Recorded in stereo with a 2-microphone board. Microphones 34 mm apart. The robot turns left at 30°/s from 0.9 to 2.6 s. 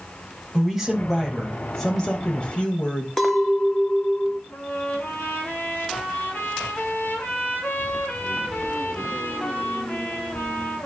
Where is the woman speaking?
175° right, 2.0 m; by 3.1 s 135° left, 2.0 m.